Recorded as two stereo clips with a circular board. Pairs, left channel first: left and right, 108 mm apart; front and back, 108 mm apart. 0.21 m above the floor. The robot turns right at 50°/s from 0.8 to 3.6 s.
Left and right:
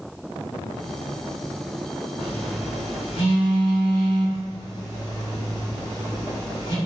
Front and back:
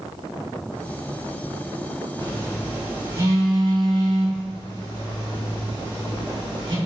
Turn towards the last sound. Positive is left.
turn(degrees=140)